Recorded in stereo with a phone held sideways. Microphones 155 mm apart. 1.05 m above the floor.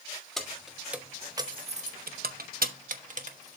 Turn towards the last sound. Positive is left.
turn(degrees=-50)  # may be behind; listen again after turning